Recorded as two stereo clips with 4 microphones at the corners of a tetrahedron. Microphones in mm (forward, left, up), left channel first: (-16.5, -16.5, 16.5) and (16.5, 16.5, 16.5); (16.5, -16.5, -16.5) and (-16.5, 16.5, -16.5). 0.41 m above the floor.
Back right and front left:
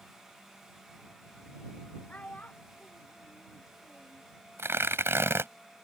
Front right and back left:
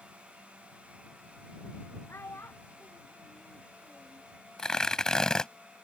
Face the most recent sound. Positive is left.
turn(degrees=30)